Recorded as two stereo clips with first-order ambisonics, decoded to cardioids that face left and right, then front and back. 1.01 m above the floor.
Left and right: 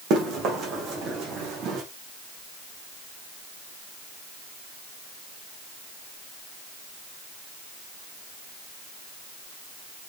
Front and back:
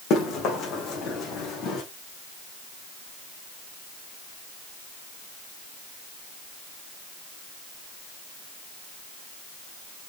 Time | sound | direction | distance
0.1 | running footsteps | 45° right | 3.5 m